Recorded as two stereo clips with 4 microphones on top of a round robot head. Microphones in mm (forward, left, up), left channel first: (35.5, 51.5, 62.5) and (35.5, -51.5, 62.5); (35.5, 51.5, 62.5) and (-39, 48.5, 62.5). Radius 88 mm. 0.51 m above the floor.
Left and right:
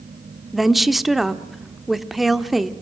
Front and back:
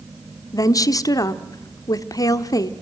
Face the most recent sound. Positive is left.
turn(degrees=0)